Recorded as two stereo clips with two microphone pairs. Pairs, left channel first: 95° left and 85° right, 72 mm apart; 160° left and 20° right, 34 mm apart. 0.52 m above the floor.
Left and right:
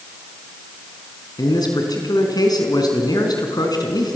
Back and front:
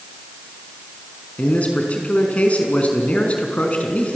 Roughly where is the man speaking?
Behind left.